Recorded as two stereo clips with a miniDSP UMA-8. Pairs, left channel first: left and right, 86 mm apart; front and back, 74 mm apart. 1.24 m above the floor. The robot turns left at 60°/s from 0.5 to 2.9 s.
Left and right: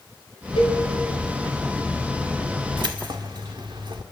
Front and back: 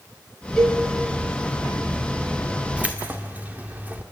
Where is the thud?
No thud in this recording.